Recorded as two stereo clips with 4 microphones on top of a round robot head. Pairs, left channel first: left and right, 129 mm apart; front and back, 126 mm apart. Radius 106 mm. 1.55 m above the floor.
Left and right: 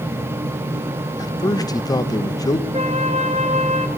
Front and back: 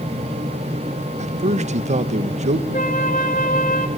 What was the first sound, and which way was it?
A man speaking, 150° left.